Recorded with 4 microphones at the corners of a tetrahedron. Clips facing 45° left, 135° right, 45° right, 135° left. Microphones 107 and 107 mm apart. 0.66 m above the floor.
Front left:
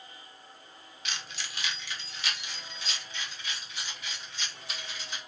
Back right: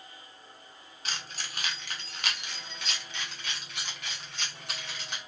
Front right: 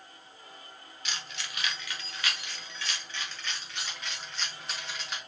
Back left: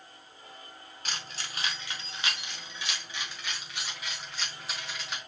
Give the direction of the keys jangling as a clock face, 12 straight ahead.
6 o'clock.